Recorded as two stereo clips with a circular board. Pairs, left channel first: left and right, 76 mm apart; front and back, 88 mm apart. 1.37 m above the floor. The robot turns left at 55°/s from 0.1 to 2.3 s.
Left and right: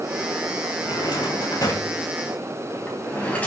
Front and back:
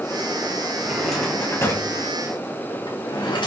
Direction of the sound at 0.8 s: 100° left.